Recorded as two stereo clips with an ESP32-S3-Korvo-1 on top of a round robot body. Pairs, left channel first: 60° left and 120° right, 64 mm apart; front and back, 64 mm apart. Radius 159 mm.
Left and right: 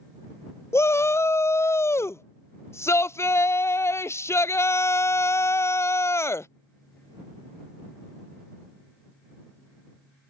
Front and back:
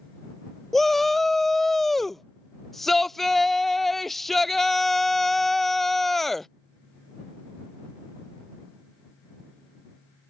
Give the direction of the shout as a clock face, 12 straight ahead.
9 o'clock.